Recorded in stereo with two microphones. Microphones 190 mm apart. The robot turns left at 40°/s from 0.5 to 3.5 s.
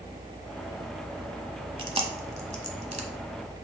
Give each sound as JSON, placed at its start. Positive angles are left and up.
{"t": 1.8, "sound": "chewing", "side_deg": -30, "distance_m": 1.1}